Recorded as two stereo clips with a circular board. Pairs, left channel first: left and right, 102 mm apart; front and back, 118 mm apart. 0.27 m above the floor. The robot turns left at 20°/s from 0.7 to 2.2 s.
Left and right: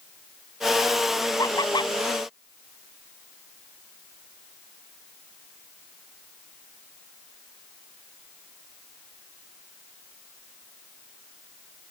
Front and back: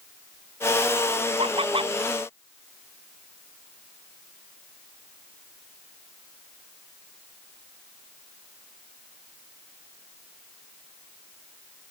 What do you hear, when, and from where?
1.4 s laughter: 145° left; by 1.9 s 135° left